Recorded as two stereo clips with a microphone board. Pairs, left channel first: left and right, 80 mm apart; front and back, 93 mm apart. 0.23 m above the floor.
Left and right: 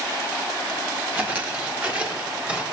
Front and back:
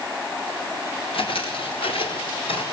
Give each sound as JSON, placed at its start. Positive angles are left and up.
{"t": 1.1, "sound": "footsteps", "azimuth_deg": -20, "distance_m": 5.0}